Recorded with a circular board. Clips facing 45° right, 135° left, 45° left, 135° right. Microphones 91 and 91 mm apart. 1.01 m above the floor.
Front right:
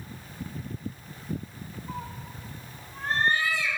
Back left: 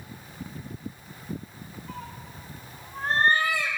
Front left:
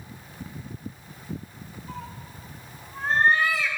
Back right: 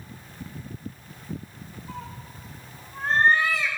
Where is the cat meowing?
50° right, 0.7 m; by 3.7 s 130° left, 1.2 m.